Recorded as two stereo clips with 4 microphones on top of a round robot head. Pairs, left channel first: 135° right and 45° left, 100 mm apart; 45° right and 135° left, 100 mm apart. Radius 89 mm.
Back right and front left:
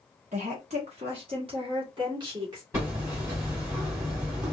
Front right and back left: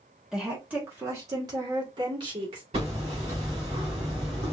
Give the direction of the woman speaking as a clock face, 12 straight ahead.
10 o'clock.